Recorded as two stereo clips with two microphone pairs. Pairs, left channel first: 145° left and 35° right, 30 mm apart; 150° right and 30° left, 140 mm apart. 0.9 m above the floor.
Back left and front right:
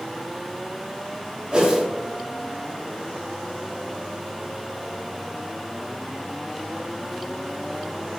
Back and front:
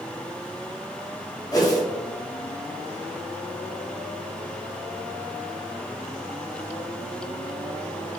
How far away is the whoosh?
About 0.5 m.